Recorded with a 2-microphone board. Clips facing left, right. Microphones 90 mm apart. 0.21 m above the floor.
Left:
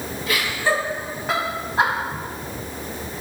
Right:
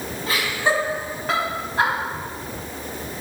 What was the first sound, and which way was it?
Laughter, 30° right (ahead or behind).